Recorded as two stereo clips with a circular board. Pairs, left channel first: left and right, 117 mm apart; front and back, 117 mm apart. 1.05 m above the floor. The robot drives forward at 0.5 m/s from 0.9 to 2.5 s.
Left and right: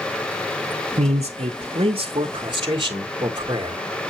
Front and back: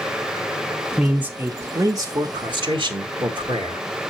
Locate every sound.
1.0 s a man speaking: 85° right, 0.6 m; by 3.8 s 140° right, 1.0 m